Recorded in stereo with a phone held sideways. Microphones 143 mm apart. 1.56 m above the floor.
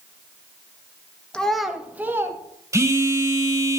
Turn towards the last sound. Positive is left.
turn(degrees=-20)  # may be behind; listen again after turning